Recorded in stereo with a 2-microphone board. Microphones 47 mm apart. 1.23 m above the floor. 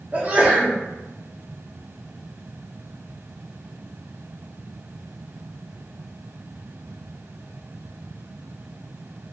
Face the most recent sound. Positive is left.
turn(degrees=-35)  # may be behind; listen again after turning